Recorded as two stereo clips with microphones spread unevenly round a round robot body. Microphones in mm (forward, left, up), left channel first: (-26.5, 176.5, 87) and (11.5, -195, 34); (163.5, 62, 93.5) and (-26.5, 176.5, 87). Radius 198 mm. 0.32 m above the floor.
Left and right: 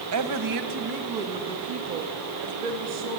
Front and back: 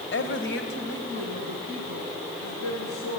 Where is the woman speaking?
60° right, 2.0 m; by 3.2 s 85° right, 5.5 m.